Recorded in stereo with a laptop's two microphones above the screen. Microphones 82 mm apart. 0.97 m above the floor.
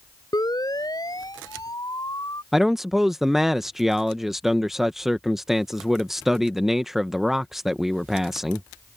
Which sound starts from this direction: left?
A siren, at 0.3 s.